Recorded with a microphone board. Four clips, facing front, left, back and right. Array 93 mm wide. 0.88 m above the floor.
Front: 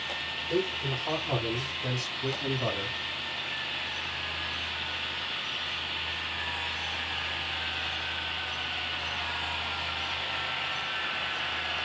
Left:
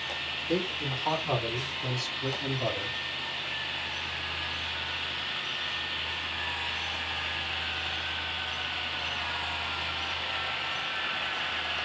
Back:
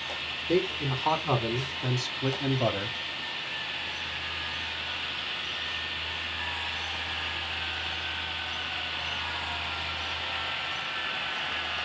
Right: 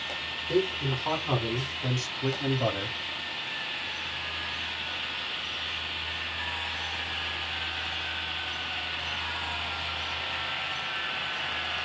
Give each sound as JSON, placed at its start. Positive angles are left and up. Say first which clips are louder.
{"t": 0.5, "sound": "a man speaking", "louder": "right 4 dB, back 3 dB", "azimuth_deg": 175, "distance_m": 2.5}